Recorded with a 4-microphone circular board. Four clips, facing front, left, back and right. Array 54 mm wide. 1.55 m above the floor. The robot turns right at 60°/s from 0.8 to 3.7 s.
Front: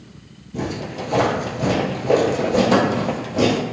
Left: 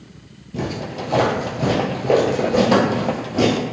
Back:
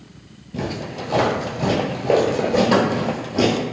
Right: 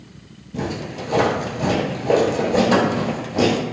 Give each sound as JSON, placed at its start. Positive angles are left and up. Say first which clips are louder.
{"t": 0.5, "sound": "footsteps", "louder": "left 1 dB, front 1 dB", "azimuth_deg": 150, "distance_m": 1.6}